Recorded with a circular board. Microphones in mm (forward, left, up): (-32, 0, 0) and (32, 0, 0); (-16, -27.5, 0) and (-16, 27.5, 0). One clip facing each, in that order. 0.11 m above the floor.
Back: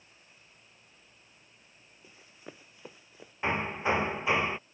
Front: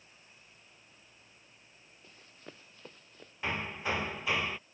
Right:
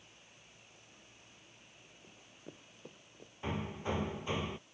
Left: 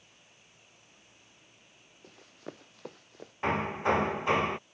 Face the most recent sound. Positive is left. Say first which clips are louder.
# back 5 dB, left 10 dB
turn(degrees=115)